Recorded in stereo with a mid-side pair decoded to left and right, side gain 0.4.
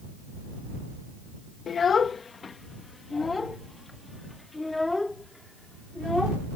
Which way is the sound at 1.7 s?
55° left.